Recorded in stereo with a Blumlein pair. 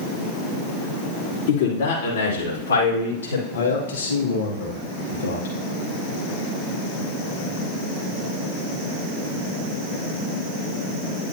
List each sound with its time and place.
1.5 s a man speaking: 55° left, 3 m; by 3.4 s 75° left, 4.5 m
3.5 s a man speaking: 65° left, 2.5 m